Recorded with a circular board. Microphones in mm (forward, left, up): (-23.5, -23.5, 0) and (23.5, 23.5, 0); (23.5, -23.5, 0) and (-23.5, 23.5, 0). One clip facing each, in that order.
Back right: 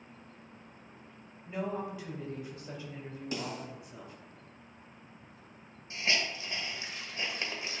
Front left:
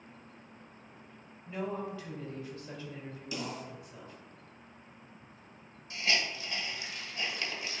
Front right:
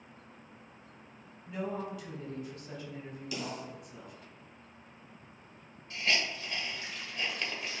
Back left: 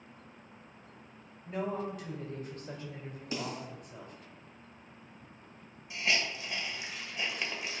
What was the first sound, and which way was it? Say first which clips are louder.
A woman speaking: back right 1 dB, back left 2 dB; 160° left.